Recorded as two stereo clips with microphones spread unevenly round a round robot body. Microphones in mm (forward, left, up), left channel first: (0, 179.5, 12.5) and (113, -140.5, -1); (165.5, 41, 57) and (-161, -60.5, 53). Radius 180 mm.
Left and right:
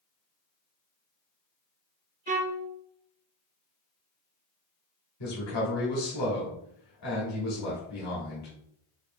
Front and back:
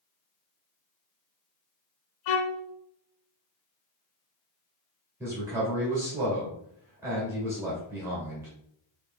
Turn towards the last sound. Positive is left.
turn(degrees=120)